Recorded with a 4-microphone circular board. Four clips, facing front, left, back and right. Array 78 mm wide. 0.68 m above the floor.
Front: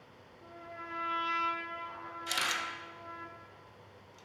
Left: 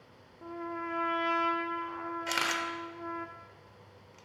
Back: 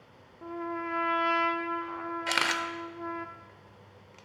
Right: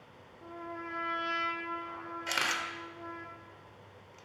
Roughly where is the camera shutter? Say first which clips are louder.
Even, back 5 dB; behind.